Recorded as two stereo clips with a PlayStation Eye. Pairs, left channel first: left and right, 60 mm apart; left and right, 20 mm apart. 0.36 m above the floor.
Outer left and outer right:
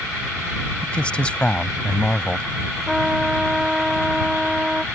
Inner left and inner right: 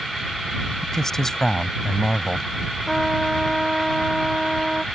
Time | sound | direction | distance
0.8 | a man speaking | 20° left (ahead or behind) | ?
2.9 | a trumpet | 10° right (ahead or behind) | ?